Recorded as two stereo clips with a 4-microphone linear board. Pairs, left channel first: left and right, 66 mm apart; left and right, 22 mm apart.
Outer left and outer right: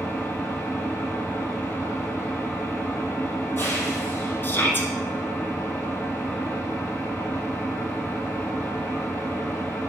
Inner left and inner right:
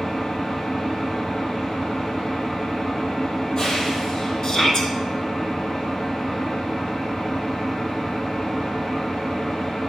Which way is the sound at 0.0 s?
35° left (ahead or behind).